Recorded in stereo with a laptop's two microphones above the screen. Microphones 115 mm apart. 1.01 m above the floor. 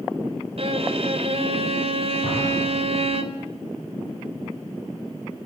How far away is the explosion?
About 8.5 m.